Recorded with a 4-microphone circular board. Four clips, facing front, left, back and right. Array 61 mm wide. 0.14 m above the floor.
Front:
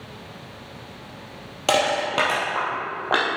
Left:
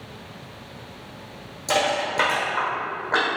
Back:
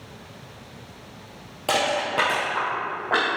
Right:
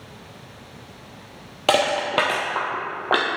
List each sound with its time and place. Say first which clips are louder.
1.7 s crushing: right 3 dB, front 2 dB; 75° right, 2.5 m